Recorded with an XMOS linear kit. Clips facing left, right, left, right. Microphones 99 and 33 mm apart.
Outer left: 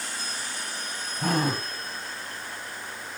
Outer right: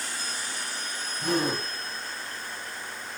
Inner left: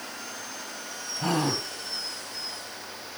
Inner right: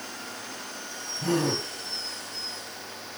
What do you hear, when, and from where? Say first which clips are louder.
1.2 s a gasp: outer left 1 dB, inner right 1 dB; 40° left (ahead or behind), 4 m